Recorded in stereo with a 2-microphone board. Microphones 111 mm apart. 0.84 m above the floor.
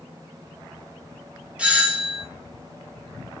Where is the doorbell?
10° right (ahead or behind), 0.8 m.